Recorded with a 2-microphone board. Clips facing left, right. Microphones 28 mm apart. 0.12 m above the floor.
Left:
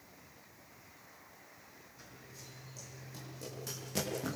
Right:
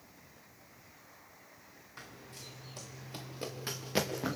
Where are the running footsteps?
75° right (ahead or behind), 4.5 m; by 4.4 s 25° right (ahead or behind), 3.5 m.